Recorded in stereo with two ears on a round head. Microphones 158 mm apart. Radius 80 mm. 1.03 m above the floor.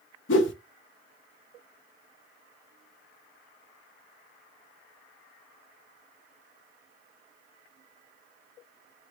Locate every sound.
0.3 s a whoosh: 75° left (ahead or behind), 0.7 m